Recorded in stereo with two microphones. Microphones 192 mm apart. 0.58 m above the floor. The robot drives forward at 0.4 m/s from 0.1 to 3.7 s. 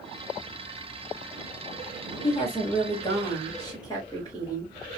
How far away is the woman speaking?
About 1.4 m.